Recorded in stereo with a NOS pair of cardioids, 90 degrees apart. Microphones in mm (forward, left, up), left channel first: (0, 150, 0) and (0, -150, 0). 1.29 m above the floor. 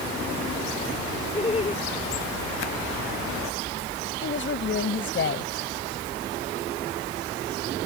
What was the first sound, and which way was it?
Laughter, 20° left.